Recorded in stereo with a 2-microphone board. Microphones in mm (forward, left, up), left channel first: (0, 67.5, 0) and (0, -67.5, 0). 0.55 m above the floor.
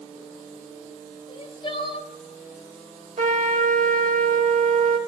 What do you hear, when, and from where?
1.3 s crying: 40° left (ahead or behind), 1.0 m
3.2 s a trumpet: 70° right (ahead or behind), 1.0 m